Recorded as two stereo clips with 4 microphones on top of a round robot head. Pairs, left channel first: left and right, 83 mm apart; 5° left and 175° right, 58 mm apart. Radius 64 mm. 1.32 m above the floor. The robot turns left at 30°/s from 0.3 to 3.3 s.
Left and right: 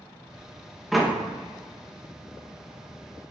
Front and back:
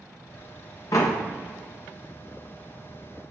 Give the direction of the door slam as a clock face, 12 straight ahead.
12 o'clock.